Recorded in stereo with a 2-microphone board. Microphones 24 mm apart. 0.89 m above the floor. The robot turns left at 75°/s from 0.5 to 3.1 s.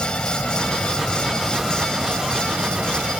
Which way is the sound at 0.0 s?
85° left.